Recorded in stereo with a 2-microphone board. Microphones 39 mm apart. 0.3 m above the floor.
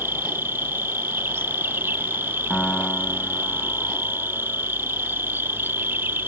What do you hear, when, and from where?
0.0 s an insect: 65° right (ahead or behind)
2.5 s a piano: 25° left (ahead or behind)